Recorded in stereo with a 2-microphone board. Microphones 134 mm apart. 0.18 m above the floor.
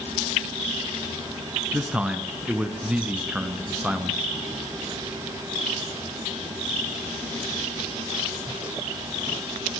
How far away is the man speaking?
About 2.5 m.